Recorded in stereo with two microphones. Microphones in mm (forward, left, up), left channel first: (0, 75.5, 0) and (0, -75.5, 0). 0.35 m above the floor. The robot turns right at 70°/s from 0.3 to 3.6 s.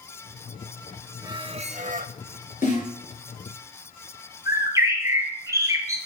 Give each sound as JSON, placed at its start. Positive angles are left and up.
{"t": 1.2, "sound": "a squeak", "azimuth_deg": -155, "distance_m": 0.5}
{"t": 2.6, "sound": "a snare drum", "side_deg": 55, "distance_m": 4.5}
{"t": 4.5, "sound": "a bird", "side_deg": -20, "distance_m": 2.5}